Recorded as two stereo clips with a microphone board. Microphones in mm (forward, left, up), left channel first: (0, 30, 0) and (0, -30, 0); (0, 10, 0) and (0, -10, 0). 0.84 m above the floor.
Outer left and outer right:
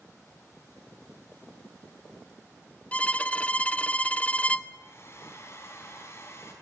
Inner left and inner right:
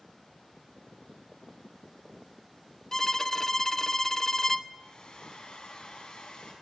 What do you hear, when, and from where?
2.9 s a violin: 25° left (ahead or behind), 0.6 m
4.7 s a hair dryer: 45° left (ahead or behind), 5.5 m